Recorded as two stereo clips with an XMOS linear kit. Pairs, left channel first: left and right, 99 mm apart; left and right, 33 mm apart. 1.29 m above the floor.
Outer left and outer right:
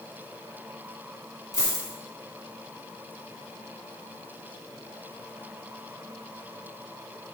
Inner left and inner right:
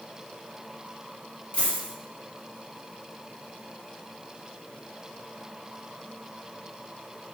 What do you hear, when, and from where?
1.5 s a dropped coin: 40° left (ahead or behind), 1.6 m